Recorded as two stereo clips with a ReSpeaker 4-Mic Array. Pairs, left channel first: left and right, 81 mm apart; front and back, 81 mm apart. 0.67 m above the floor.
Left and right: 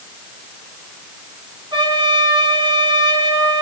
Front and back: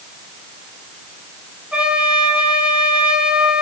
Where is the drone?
I don't hear a drone.